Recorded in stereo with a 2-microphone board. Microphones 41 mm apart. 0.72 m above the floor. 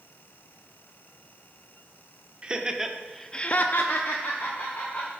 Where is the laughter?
20° right (ahead or behind), 1.5 m; by 5.1 s 55° left (ahead or behind), 2 m.